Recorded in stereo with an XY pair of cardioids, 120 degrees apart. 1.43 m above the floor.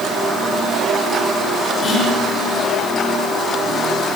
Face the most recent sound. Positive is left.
turn(degrees=55)